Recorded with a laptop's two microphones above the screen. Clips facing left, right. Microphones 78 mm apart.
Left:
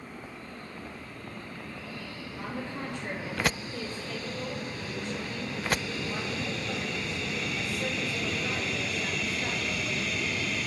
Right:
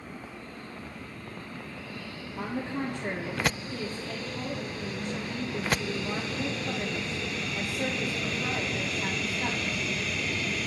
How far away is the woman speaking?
About 2.5 m.